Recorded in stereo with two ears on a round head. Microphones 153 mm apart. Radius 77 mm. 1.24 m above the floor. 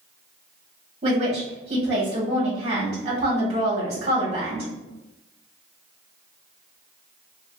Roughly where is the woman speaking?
Right.